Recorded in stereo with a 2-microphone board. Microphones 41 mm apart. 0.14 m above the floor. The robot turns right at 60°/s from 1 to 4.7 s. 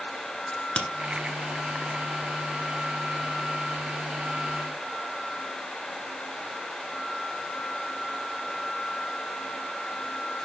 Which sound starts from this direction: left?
A crack, at 0.5 s.